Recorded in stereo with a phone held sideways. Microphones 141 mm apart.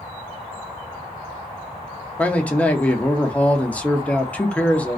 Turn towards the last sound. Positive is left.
turn(degrees=10)  # may be behind; listen again after turning